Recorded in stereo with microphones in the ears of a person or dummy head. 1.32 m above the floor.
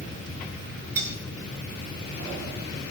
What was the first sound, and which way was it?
Cutlery clinking, 15° right (ahead or behind).